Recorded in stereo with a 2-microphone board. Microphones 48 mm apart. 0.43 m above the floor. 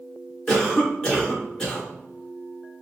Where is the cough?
15° left (ahead or behind), 1.0 m.